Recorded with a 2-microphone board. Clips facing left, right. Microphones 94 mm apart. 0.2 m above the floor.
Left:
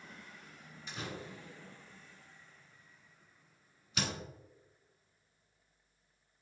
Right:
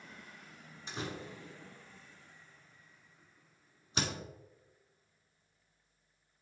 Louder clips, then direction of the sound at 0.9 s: Right 2 dB; 35° right (ahead or behind).